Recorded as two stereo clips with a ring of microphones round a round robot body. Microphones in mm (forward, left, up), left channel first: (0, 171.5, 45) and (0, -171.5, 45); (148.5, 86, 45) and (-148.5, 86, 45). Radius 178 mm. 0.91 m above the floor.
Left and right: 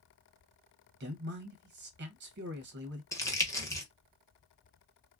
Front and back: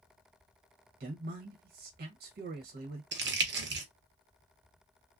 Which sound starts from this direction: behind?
Crumpling, at 3.1 s.